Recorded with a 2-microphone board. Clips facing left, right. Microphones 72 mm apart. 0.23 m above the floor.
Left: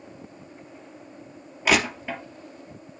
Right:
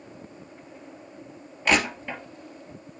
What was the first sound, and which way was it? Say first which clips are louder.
Crushing: left 1 dB; 10° left (ahead or behind).